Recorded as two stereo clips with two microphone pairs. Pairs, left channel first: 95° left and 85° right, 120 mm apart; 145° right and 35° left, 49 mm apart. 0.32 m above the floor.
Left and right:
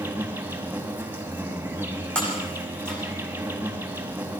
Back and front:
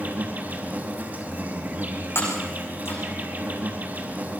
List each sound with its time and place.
0.0 s an insect: 10° right, 4 m
2.1 s breaking glass: straight behind, 10 m